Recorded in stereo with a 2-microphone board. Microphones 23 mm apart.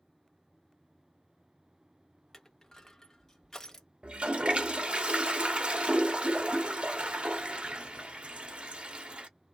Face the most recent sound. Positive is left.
turn(degrees=-65)  # may be behind; listen again after turning